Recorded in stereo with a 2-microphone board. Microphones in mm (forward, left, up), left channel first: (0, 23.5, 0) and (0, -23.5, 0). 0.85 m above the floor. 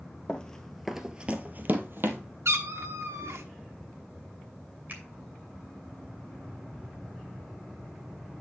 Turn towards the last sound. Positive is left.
turn(degrees=-45)  # may be behind; listen again after turning